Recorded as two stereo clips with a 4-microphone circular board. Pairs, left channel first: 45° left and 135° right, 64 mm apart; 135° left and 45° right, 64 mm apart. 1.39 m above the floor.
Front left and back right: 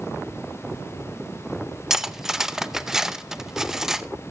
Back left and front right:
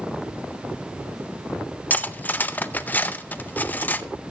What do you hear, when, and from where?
1.9 s cutlery clinking: 150° left, 0.5 m